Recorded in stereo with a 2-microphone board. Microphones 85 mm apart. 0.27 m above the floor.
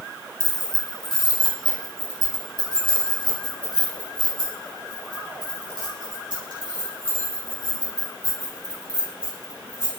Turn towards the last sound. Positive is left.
turn(degrees=-60)  # may be behind; listen again after turning